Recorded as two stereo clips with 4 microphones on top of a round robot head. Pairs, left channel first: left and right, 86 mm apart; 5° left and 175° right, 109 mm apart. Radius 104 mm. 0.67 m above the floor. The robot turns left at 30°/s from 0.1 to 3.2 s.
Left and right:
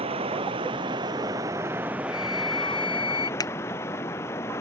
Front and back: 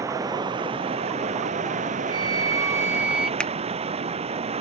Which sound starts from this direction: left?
A finger snap, at 3.4 s.